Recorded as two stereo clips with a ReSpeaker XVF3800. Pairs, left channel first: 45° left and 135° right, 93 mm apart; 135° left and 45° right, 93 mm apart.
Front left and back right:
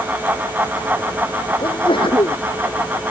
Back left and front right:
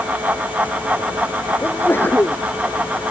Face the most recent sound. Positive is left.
turn(degrees=70)